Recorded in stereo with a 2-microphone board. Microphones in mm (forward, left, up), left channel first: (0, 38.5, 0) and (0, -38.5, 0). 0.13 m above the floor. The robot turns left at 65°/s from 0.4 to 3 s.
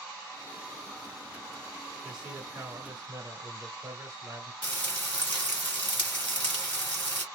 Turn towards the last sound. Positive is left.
turn(degrees=15)  # may be behind; listen again after turning